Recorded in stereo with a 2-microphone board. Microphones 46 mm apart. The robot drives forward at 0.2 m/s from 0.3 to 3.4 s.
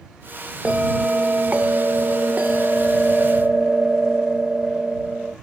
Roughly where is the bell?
Right.